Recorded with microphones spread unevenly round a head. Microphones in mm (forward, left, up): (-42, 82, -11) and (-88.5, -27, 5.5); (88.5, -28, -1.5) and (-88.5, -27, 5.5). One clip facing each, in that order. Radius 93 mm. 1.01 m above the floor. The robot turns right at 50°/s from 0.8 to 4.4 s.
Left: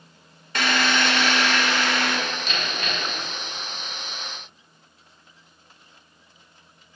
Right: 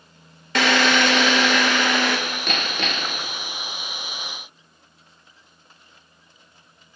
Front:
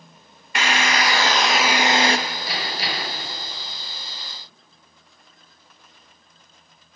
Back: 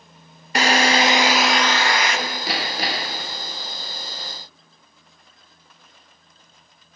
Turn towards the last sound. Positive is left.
turn(degrees=-55)